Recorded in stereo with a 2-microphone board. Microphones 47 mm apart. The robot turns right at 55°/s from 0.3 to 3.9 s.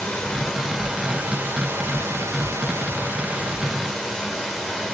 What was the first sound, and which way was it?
Running water, 170° left.